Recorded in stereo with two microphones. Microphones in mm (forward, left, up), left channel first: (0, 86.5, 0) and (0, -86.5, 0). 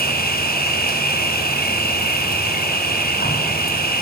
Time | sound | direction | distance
0.0 | an insect | 60° left (ahead or behind) | 5 m